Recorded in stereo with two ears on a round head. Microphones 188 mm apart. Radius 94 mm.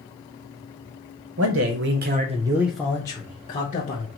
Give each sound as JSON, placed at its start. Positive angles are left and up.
{"t": 1.4, "sound": "a man speaking", "side_deg": -75, "distance_m": 0.9}